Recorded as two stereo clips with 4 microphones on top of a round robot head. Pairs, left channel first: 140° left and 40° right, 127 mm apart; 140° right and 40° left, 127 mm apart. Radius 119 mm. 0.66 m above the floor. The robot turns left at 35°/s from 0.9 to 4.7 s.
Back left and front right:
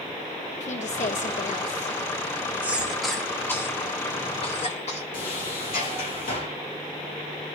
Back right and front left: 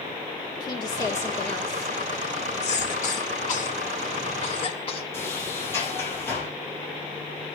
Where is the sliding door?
145° left, 5 m.